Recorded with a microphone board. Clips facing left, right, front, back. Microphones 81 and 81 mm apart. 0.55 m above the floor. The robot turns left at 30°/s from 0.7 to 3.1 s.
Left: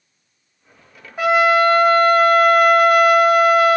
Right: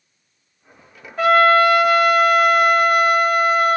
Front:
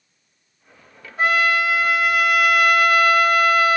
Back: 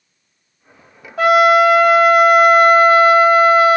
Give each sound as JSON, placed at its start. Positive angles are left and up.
{"t": 1.2, "sound": "a trumpet", "azimuth_deg": 170, "distance_m": 1.4}